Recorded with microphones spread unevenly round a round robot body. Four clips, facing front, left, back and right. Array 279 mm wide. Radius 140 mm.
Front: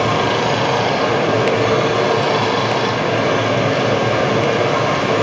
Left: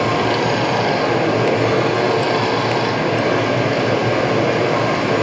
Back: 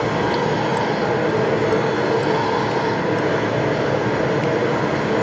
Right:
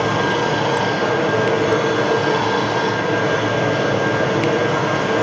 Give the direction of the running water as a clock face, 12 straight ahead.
11 o'clock.